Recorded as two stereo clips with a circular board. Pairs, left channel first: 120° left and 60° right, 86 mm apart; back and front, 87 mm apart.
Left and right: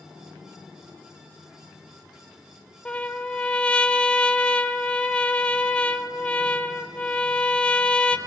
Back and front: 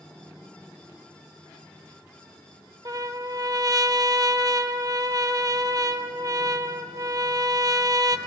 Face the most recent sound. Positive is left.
turn(degrees=45)